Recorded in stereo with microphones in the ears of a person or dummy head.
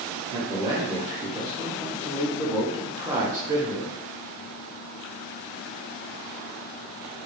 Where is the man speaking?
20° right (ahead or behind), 0.7 m.